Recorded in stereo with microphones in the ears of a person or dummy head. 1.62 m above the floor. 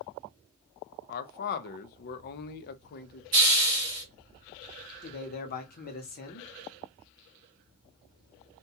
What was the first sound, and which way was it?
A man speaking, 55° left (ahead or behind).